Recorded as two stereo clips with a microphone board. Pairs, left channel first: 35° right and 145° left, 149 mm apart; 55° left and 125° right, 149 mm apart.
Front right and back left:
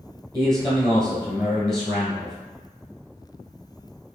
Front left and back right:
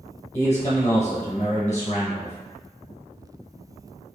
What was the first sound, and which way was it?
A man speaking, 10° left.